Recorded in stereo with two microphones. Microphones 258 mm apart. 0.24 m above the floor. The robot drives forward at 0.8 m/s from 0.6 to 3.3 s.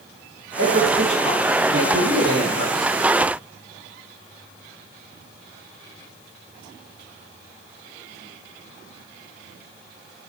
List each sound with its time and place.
0.6 s a man speaking: 50° right (ahead or behind), 7 m; by 2.9 s 40° right (ahead or behind), 8.5 m